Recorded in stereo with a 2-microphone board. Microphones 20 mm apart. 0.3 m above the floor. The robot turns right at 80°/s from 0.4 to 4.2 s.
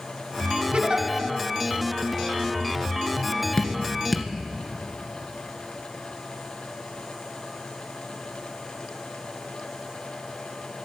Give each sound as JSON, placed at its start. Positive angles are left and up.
{"t": 0.7, "sound": "a giggle", "side_deg": -55, "distance_m": 1.6}
{"t": 3.6, "sound": "dripping", "side_deg": 30, "distance_m": 1.9}